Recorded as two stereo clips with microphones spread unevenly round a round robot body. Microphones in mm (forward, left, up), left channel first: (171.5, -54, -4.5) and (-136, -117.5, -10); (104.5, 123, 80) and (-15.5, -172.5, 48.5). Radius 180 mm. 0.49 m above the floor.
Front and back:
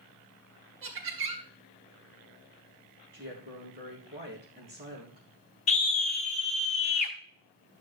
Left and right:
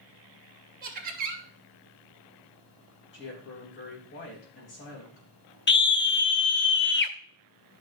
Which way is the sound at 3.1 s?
125° left.